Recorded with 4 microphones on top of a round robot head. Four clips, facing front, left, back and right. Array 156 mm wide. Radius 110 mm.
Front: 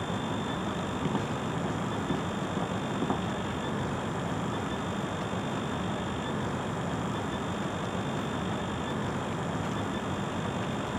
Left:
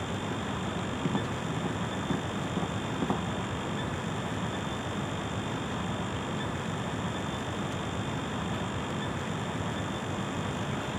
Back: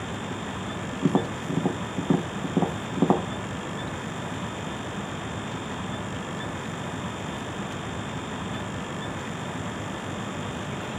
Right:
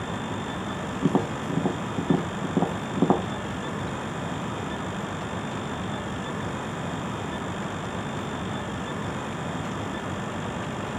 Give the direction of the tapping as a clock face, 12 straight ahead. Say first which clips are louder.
Right 10 dB, back 10 dB; 4 o'clock.